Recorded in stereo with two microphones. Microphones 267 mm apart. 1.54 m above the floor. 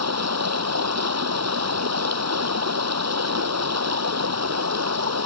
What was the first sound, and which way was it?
Running water, 75° right (ahead or behind).